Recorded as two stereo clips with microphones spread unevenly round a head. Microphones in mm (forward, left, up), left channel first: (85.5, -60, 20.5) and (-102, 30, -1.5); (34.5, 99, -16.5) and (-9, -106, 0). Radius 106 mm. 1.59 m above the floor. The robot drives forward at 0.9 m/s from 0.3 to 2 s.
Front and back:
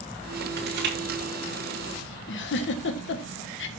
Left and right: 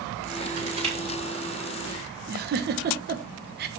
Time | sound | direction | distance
0.6 | crushing | 165° right | 5 m
2.3 | a giggle | 60° right | 1.4 m